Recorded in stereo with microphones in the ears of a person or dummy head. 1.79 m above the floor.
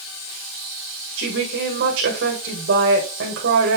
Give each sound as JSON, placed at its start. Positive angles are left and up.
{"t": 1.2, "sound": "a woman speaking", "side_deg": -60, "distance_m": 1.6}